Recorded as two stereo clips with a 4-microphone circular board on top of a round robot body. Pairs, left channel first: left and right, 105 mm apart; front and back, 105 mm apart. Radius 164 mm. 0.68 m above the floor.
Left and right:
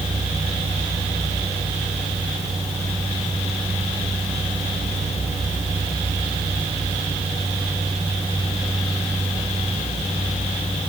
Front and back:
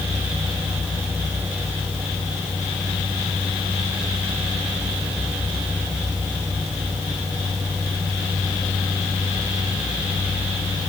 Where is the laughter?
I don't hear laughter.